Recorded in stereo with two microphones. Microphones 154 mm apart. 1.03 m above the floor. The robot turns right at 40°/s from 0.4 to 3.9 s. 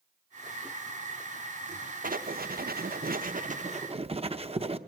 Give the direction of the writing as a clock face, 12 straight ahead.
4 o'clock.